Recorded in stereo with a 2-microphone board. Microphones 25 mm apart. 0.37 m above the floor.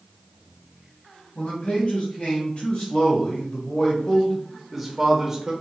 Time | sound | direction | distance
1.4 | a man speaking | 60° left (ahead or behind) | 2.5 m